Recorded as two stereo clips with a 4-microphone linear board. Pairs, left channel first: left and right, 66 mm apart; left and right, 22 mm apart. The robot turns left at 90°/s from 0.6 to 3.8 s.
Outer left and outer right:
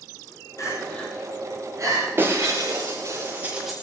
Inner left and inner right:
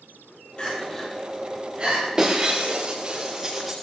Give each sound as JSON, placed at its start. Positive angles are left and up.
{"t": 0.6, "sound": "crying", "side_deg": 55, "distance_m": 9.5}
{"t": 2.2, "sound": "breaking glass", "azimuth_deg": -40, "distance_m": 6.5}